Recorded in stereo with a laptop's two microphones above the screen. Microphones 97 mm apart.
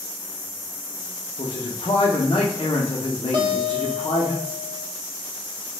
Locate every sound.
1.4 s a man speaking: 55° left (ahead or behind), 0.5 m
3.3 s a guitar: 55° right (ahead or behind), 0.8 m